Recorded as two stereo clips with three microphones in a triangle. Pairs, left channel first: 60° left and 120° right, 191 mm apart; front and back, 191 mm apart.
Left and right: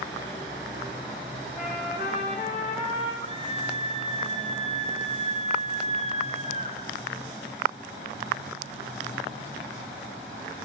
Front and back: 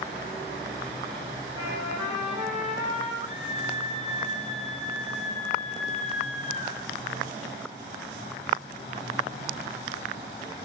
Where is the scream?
120° left, 3.5 m.